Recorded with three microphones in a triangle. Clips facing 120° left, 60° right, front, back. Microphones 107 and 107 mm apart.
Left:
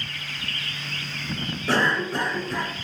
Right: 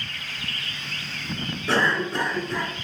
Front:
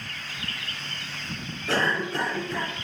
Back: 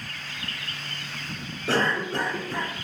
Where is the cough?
155° right, 1.4 m.